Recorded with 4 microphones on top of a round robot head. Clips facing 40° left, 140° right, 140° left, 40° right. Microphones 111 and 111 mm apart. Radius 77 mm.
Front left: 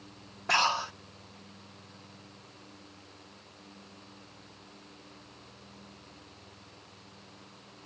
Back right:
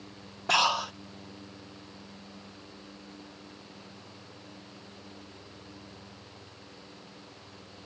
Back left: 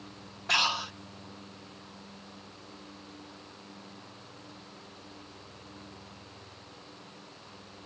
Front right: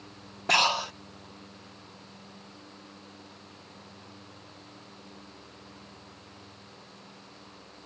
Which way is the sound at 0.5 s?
70° right.